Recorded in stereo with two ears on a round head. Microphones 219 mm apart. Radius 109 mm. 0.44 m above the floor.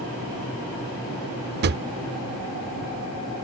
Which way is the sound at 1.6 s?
45° right (ahead or behind).